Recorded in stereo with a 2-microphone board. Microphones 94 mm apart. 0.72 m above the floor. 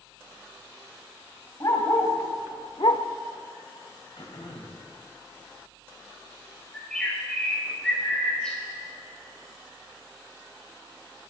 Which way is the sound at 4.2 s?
70° left (ahead or behind).